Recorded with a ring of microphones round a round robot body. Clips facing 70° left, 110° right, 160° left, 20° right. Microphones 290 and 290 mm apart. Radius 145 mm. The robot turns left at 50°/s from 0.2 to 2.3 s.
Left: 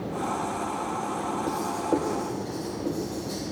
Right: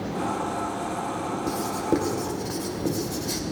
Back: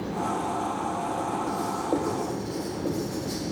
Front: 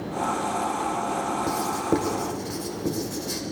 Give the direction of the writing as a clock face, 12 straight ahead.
1 o'clock.